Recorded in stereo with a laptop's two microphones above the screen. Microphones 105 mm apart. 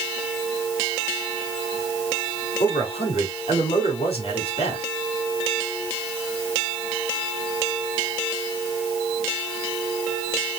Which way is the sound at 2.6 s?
80° left.